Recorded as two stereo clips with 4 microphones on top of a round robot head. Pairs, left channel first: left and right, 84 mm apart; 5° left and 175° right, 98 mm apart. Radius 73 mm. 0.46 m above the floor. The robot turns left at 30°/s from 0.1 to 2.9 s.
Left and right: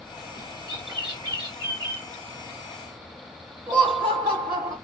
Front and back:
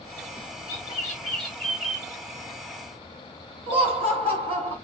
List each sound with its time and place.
0.7 s a bird: 55° right, 2 m; by 2.1 s 95° right, 2 m
3.7 s laughter: 165° right, 2 m